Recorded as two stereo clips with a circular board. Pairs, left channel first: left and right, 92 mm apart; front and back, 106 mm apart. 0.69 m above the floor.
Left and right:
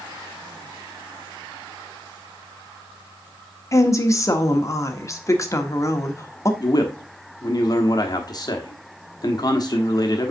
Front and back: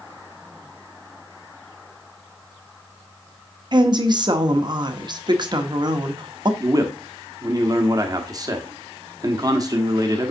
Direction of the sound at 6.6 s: 130° left.